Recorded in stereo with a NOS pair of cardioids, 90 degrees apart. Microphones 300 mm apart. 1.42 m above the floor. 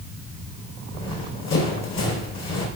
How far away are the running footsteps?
About 5 m.